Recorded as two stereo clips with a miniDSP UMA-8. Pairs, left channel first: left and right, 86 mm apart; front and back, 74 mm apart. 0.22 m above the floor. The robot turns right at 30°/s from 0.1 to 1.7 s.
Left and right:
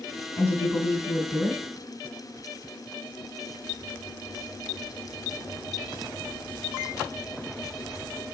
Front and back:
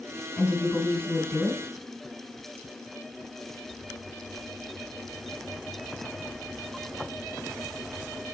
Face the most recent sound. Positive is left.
turn(degrees=75)